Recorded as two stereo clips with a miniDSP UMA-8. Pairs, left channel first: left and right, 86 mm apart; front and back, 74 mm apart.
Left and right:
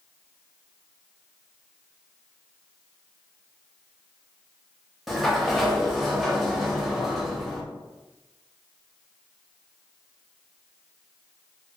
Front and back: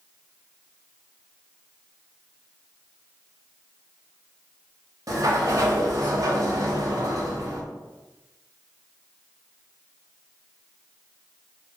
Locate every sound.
5.1 s a sliding door: straight behind, 0.6 m